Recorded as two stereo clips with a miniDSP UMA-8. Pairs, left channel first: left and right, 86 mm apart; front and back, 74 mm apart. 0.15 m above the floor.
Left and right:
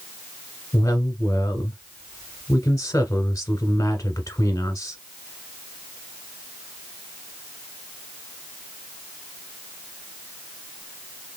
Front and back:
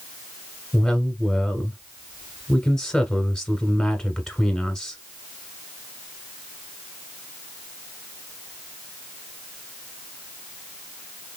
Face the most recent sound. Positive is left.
turn(degrees=75)